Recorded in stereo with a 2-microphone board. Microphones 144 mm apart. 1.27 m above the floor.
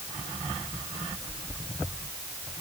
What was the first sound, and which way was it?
Only background noise.